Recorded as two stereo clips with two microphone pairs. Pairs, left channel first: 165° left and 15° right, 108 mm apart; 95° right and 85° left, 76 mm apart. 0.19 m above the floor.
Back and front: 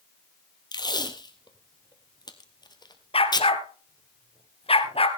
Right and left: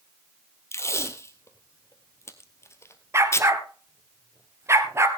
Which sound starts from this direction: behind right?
Tape being pulled, at 0.7 s.